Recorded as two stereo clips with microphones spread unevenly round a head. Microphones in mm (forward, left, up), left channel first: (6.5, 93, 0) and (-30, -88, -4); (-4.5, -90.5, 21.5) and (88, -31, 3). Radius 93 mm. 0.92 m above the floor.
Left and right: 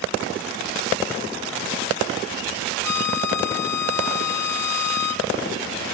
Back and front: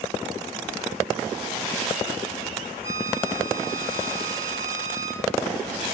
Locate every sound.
2.8 s a violin: 110° left, 1.8 m